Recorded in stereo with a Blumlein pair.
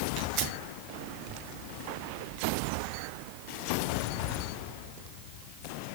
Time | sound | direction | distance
0.2 | tearing paper | 40° right | 3 m